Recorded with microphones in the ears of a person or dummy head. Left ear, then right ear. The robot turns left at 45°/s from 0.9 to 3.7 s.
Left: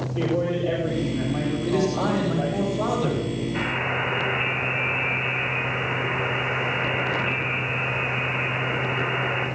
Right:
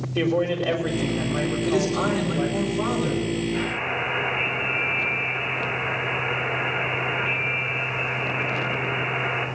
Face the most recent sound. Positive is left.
turn(degrees=-85)